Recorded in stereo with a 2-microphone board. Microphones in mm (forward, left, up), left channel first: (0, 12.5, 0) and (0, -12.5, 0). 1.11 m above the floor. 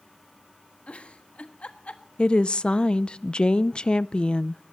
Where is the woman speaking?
40° left (ahead or behind), 0.5 m.